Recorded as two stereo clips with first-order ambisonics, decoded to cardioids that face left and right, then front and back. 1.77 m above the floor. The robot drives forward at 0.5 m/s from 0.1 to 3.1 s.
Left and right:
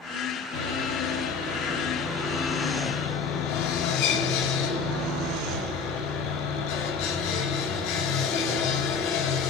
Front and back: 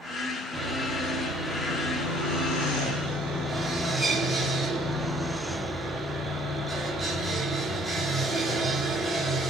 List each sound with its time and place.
0.5 s sawing: 95° left, 9 m; by 9.5 s 100° left, 9 m